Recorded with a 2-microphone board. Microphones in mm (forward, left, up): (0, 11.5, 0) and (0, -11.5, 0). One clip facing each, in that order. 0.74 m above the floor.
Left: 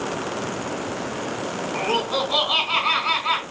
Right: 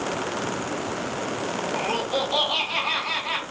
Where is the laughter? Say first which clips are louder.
Left 4 dB; 65° left (ahead or behind), 2.5 m.